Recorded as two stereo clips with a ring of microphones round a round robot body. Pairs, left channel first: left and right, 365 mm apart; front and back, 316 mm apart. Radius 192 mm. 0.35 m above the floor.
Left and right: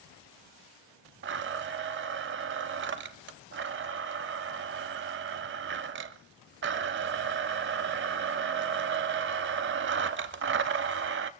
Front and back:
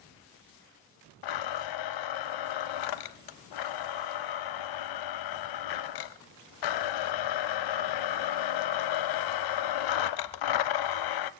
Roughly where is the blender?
Ahead right.